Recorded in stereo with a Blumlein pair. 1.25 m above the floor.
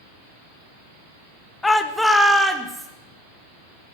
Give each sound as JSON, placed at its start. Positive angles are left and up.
{"t": 1.6, "sound": "a shout", "azimuth_deg": 10, "distance_m": 1.0}